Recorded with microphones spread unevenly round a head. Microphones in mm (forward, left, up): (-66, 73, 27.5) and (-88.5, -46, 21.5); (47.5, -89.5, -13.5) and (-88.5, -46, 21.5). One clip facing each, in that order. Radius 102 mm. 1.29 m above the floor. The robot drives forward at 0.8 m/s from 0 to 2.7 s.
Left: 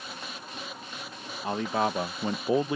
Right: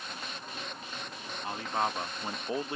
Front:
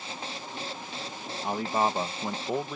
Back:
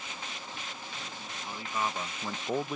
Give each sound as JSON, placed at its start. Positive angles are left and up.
{"t": 1.4, "sound": "a man speaking", "azimuth_deg": 40}